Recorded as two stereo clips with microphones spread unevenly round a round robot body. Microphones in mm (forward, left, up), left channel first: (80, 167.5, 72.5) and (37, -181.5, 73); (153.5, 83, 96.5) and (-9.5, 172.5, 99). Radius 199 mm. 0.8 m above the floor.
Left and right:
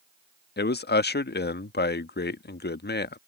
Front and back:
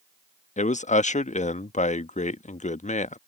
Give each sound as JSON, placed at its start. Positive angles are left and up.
{"t": 0.6, "sound": "a man speaking", "azimuth_deg": 20}